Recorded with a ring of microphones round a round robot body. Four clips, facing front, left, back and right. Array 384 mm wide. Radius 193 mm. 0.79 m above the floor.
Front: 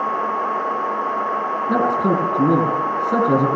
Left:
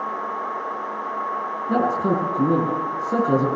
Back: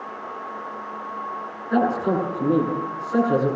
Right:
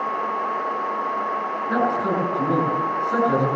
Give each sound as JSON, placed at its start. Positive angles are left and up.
{"t": 1.7, "sound": "a man speaking", "azimuth_deg": 20, "distance_m": 10.0}